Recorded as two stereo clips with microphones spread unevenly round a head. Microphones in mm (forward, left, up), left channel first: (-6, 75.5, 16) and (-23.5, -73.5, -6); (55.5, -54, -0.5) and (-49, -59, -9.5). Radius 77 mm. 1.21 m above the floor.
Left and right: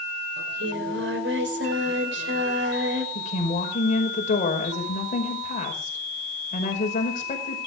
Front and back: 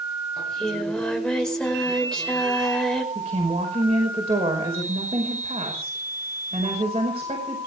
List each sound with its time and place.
0.4 s singing: 80° right, 5.5 m
3.1 s a woman speaking: 125° left, 5 m